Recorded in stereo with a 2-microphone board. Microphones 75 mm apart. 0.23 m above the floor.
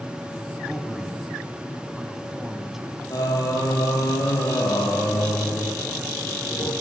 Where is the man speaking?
5° right (ahead or behind), 1.9 m.